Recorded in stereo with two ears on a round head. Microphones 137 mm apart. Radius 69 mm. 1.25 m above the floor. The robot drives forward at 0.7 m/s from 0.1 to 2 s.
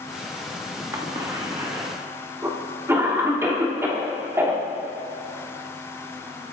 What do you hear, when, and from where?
0.9 s a cough: 25° right (ahead or behind), 2 m; by 6.5 s 15° right (ahead or behind), 3 m